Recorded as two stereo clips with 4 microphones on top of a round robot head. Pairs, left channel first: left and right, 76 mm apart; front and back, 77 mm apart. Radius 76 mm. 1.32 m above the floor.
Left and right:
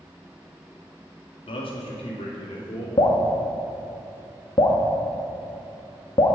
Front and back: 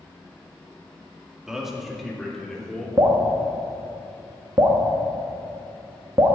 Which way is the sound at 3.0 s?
125° left.